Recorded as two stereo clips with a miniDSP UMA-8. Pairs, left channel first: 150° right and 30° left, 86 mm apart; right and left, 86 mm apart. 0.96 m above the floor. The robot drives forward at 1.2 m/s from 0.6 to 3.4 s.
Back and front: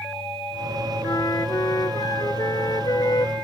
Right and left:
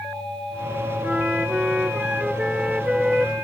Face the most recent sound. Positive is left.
turn(degrees=175)